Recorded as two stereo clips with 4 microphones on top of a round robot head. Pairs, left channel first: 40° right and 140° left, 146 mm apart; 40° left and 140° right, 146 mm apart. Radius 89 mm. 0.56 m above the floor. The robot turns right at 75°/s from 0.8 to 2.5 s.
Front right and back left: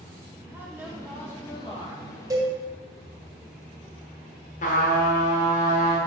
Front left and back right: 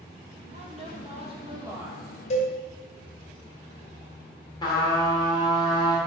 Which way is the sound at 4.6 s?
15° right.